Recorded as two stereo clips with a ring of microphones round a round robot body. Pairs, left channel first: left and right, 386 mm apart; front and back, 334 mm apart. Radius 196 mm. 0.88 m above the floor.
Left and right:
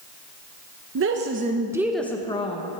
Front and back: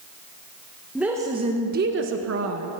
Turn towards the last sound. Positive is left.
turn(degrees=155)